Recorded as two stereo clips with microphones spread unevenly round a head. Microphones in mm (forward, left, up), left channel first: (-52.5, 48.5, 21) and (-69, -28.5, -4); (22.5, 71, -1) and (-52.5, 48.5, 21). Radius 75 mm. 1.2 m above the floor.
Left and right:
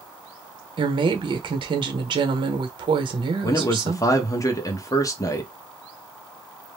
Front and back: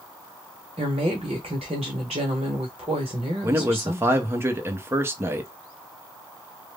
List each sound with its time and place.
0.8 s a woman speaking: 115° right, 0.9 m
3.4 s a man speaking: 130° left, 0.9 m